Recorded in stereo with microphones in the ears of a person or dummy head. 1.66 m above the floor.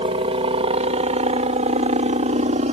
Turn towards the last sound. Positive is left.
turn(degrees=-35)  # may be behind; listen again after turning